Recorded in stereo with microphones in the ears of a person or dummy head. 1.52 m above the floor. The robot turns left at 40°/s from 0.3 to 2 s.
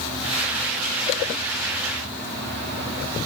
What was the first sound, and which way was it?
Only background noise.